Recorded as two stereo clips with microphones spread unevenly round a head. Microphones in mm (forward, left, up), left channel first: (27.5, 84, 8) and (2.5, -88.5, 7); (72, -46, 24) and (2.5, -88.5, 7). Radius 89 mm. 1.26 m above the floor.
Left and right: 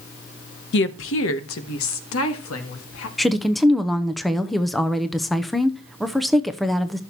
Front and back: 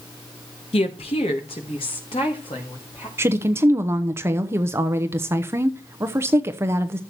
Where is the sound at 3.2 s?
170° left, 0.7 m.